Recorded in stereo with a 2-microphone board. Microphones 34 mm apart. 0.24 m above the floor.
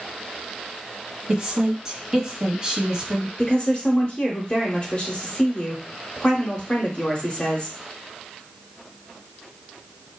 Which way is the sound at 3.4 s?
35° left (ahead or behind).